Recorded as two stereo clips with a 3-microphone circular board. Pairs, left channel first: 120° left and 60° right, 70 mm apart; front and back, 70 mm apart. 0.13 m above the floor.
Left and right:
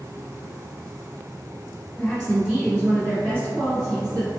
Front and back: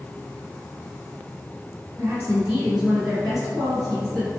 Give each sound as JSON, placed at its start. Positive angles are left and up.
{"t": 2.0, "sound": "a woman speaking", "azimuth_deg": -175, "distance_m": 1.1}